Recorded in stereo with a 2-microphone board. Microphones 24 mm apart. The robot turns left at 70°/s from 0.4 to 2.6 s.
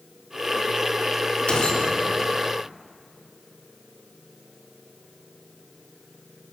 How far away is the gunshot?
About 3.5 m.